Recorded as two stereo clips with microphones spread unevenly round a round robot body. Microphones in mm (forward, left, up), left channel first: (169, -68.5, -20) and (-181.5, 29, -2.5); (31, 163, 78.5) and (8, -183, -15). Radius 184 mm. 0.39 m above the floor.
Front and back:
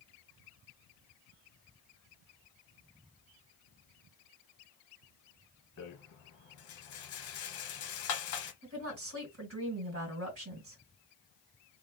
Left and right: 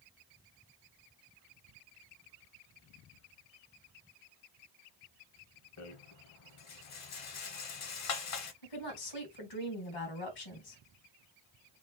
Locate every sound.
5.8 s a rattle: 40° left, 1.0 m
8.6 s a woman speaking: 110° left, 2.5 m